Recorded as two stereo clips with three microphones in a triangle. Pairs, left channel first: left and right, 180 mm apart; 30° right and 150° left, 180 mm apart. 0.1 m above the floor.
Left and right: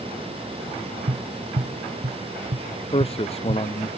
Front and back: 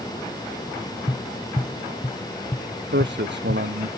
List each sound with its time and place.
1.1 s tapping: 80° right
2.9 s a man speaking: 145° left